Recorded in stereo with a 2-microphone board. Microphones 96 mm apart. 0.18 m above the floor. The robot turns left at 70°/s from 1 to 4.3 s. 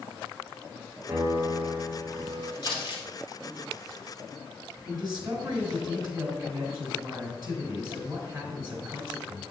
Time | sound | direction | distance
1.1 | a piano | 140° right | 3.5 m
2.6 | crumpling | 50° left (ahead or behind) | 2.5 m
4.8 | a man speaking | 45° right (ahead or behind) | 3 m